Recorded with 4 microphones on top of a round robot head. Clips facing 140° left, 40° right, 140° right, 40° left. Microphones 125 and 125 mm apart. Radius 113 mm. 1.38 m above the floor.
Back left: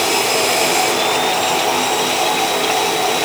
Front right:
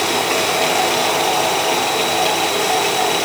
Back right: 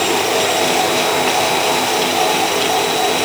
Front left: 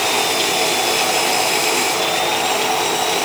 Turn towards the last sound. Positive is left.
No sound to turn to.